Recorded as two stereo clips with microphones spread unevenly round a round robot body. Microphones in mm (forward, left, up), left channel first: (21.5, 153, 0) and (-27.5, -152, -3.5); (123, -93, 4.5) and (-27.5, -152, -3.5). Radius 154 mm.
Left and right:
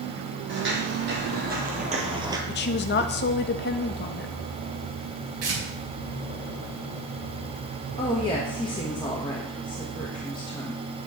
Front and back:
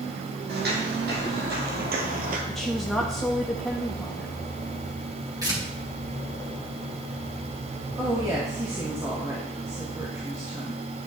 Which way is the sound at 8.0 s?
150° left.